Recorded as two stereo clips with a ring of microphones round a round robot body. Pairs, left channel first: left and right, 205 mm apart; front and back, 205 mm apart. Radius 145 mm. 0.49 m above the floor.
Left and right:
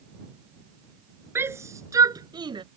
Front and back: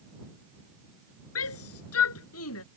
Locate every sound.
1.4 s a shout: 10° right; by 2.6 s 25° right